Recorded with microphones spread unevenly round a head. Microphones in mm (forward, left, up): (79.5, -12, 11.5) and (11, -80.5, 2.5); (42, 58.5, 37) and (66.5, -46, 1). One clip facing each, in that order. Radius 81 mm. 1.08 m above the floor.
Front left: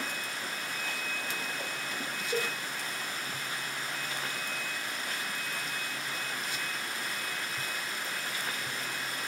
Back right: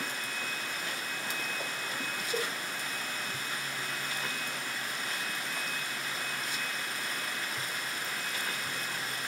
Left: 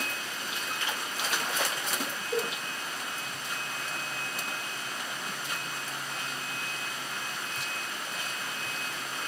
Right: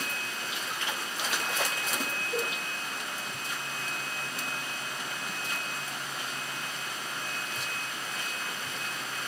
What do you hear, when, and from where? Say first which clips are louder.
2.3 s a cowbell: front left 2 dB, left 2 dB; 80° left, 2 m